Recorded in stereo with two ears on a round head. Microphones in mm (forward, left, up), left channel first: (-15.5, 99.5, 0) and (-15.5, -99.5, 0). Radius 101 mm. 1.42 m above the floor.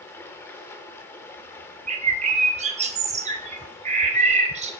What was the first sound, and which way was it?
Running water, 10° left (ahead or behind).